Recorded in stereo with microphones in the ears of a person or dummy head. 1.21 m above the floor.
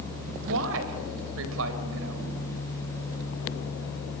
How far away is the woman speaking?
About 5 m.